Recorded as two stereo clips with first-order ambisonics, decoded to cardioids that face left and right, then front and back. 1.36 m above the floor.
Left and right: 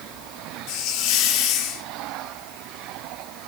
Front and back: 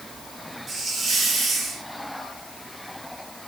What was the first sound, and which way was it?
A hiss, 115° left.